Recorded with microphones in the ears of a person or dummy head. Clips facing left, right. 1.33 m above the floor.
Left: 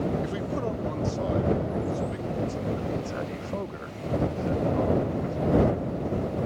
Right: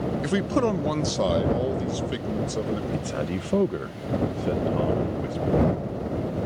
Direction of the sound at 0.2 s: 70° right (ahead or behind).